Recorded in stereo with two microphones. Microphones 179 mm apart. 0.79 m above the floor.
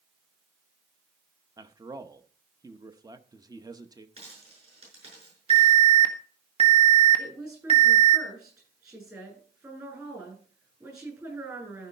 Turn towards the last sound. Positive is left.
turn(degrees=-20)  # may be behind; listen again after turning